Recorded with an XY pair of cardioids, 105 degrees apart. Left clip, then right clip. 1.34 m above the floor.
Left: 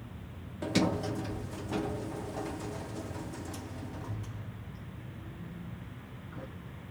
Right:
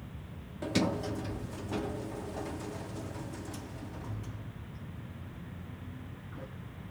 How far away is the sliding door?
About 0.6 m.